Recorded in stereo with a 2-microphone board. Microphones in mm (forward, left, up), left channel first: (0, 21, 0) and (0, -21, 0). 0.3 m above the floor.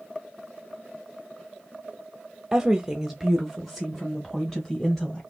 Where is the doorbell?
No doorbell in this recording.